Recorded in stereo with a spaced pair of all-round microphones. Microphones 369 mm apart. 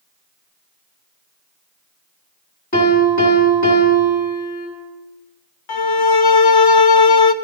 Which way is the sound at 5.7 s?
75° left (ahead or behind).